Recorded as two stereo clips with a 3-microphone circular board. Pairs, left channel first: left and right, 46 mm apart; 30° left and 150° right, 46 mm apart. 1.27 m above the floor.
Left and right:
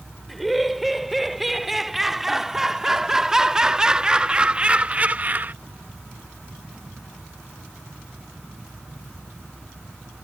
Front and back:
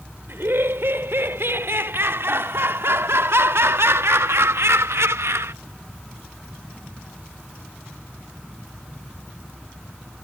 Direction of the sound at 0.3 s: Straight behind.